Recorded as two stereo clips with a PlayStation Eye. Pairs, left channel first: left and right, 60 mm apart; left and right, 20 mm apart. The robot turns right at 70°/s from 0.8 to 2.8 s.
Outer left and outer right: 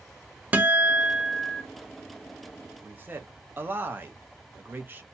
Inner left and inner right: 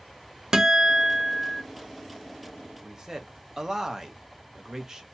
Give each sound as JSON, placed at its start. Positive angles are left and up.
{"t": 0.5, "sound": "a guitar", "azimuth_deg": -30, "distance_m": 0.7}
{"t": 2.8, "sound": "a man speaking", "side_deg": -35, "distance_m": 0.7}